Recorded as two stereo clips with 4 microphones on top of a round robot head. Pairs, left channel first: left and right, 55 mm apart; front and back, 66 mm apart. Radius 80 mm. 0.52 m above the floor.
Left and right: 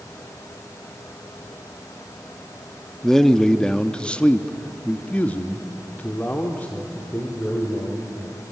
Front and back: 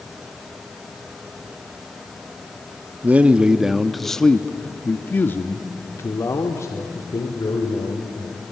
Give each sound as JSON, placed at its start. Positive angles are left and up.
{"t": 3.0, "sound": "a man speaking", "azimuth_deg": 165, "distance_m": 1.1}